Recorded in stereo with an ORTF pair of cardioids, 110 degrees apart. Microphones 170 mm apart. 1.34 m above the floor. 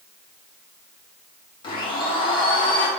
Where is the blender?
30° left, 1.4 m.